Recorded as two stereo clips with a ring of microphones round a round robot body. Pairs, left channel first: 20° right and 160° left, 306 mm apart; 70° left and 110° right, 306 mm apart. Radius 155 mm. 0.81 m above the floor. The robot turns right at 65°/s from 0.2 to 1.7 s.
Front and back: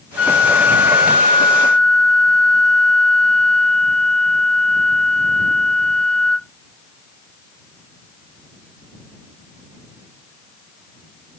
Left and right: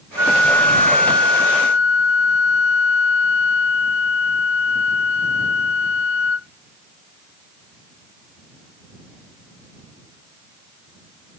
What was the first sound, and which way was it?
A flute, 35° right.